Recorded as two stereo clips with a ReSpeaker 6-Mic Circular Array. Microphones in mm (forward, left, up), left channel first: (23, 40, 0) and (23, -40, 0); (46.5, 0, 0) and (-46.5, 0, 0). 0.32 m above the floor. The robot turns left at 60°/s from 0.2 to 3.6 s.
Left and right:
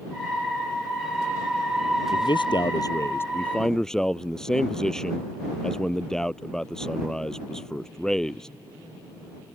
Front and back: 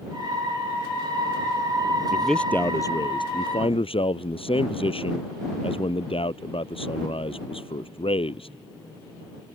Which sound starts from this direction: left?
A man speaking, at 2.1 s.